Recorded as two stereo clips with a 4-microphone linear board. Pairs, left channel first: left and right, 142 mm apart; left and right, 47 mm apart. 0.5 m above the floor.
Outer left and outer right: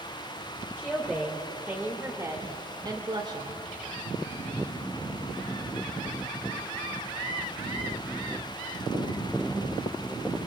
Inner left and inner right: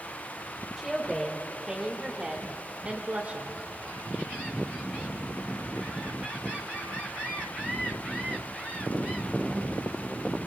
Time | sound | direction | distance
0.8 | a woman speaking | 5° left (ahead or behind) | 1.8 m